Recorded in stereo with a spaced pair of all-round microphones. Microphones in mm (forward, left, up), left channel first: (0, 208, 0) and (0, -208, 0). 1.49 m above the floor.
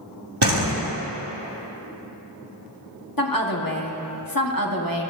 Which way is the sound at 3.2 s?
55° left (ahead or behind).